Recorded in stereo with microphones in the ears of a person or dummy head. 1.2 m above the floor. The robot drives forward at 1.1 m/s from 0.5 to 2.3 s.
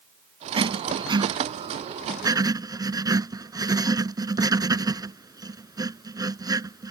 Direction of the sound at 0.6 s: 25° right (ahead or behind).